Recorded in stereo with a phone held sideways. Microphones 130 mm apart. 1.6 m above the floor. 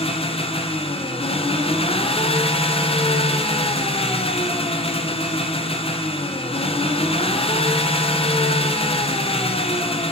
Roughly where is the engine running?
Left.